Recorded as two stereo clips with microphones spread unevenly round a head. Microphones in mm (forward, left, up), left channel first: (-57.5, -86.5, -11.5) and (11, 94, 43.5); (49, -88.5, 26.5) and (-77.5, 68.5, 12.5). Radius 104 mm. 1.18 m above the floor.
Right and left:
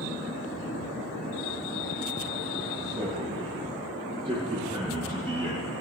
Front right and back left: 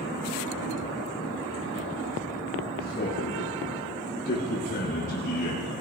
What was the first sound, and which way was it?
A man speaking, straight ahead.